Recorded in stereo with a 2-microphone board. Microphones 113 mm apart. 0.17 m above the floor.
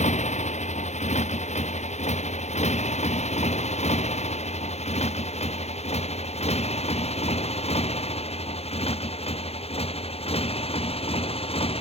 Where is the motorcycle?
85° left; by 11.8 s 55° left (ahead or behind).